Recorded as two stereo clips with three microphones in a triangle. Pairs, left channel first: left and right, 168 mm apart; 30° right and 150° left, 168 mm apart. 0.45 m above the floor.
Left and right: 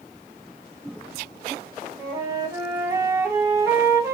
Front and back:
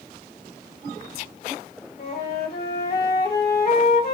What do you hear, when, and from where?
2.0 s a flute: 20° right, 1.3 m